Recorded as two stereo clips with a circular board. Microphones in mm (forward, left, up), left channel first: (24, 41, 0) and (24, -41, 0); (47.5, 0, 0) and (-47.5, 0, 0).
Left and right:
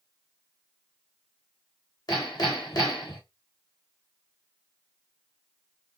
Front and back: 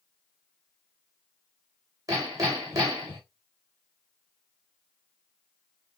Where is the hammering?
130° left, 4 m.